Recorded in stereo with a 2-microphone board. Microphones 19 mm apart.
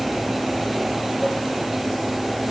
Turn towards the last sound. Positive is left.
turn(degrees=10)  # may be behind; listen again after turning